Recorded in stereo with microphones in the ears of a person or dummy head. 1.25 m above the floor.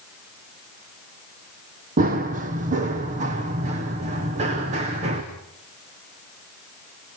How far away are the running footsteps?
About 2.5 m.